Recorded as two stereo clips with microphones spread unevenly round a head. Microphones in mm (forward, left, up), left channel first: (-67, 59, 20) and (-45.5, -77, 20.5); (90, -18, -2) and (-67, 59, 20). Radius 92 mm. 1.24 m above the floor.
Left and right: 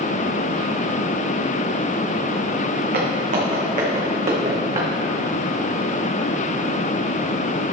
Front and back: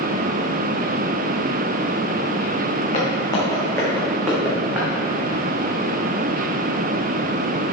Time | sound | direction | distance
2.9 | footsteps | 90° right | 4 m